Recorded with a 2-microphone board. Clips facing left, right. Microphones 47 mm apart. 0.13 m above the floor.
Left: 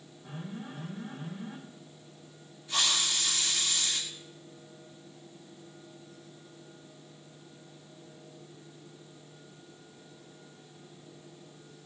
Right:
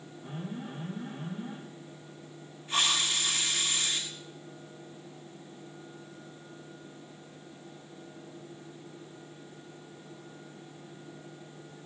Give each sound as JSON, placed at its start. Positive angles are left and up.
{"t": 0.2, "sound": "an alarm", "side_deg": -65, "distance_m": 5.0}
{"t": 2.7, "sound": "a hiss", "side_deg": -45, "distance_m": 6.5}